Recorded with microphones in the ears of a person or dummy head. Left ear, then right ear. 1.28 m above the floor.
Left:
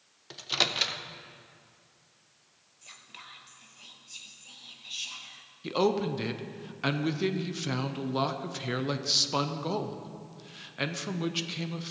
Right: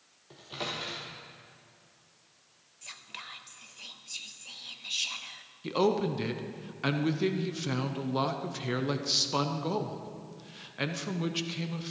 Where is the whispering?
20° right (ahead or behind), 0.8 m.